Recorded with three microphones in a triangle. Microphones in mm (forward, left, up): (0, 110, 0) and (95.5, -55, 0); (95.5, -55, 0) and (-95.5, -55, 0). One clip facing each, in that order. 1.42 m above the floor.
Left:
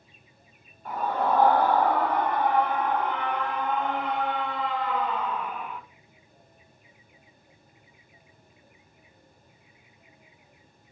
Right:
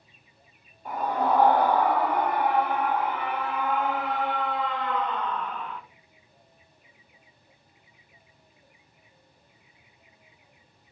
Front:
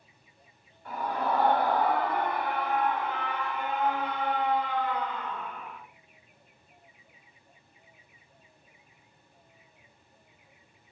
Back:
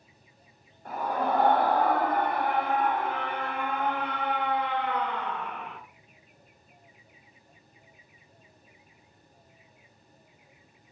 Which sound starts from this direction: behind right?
A scream, at 0.8 s.